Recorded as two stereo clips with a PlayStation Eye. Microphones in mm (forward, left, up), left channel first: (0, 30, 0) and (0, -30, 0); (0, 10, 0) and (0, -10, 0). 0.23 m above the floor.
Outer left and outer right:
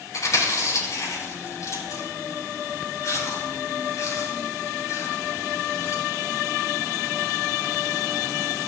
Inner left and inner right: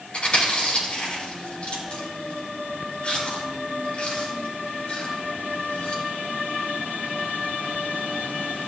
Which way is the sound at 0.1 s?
60° left (ahead or behind).